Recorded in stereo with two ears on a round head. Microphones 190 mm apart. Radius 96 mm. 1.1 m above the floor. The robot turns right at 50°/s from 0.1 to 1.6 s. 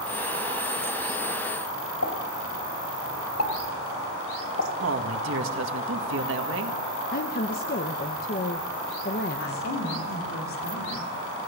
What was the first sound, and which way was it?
A pop, 70° left (ahead or behind).